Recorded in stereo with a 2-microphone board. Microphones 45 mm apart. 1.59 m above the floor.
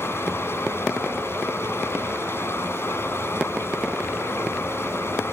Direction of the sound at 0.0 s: 70° left (ahead or behind).